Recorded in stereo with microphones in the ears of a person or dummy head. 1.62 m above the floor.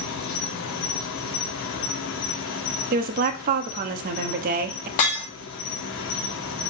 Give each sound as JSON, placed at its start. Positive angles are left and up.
{"t": 0.0, "sound": "an insect", "side_deg": 60, "distance_m": 0.8}
{"t": 2.9, "sound": "a woman speaking", "side_deg": -50, "distance_m": 0.7}
{"t": 5.0, "sound": "breaking glass", "side_deg": 40, "distance_m": 1.4}